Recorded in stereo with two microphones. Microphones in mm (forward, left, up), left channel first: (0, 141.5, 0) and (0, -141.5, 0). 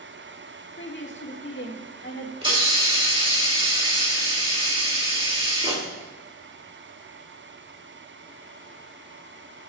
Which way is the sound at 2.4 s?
20° right (ahead or behind).